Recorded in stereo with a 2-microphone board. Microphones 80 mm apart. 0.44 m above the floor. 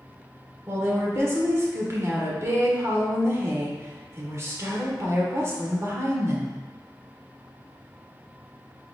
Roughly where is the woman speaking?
Right.